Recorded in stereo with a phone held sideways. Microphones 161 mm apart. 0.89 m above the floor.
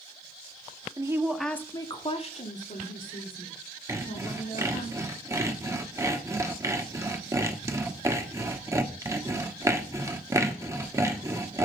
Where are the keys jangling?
I don't hear keys jangling.